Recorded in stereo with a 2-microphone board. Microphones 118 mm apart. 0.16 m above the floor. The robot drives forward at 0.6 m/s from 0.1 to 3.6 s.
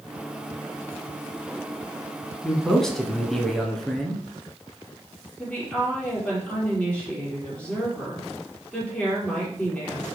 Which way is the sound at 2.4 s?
5° left (ahead or behind).